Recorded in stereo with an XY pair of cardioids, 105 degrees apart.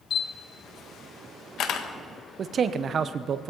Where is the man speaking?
50° right, 0.8 m.